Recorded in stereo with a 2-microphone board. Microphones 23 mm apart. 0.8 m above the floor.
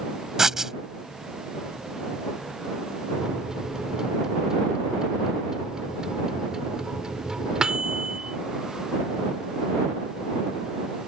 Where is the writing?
20° right (ahead or behind).